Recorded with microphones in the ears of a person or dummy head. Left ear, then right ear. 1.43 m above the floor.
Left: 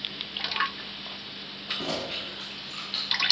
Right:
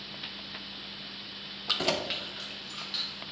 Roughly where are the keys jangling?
Right.